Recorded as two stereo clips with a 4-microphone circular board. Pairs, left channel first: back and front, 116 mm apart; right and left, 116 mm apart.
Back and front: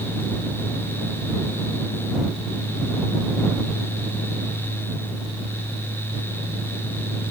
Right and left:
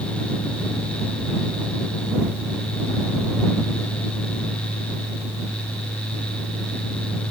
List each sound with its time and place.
Only background noise.